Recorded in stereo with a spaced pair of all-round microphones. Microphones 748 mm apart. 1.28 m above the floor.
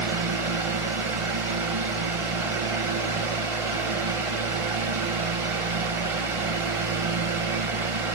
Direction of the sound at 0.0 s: 45° right (ahead or behind).